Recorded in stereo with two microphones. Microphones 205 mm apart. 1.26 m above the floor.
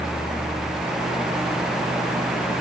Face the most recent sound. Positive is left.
No sound to turn to.